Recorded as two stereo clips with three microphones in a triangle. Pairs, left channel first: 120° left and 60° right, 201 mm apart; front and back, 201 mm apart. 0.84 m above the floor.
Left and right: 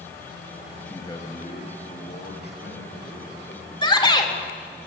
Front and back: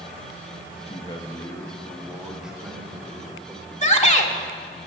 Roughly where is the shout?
Ahead left.